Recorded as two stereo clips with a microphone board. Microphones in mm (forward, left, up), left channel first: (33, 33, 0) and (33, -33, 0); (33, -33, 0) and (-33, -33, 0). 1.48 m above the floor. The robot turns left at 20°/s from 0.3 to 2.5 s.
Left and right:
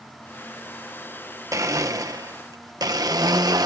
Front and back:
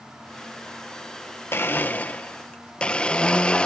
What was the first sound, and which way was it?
A blender, 55° right.